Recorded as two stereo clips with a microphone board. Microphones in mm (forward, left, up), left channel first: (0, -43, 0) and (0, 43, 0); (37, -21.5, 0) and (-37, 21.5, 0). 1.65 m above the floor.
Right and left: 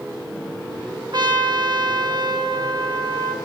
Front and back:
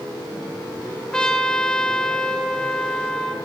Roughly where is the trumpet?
Ahead left.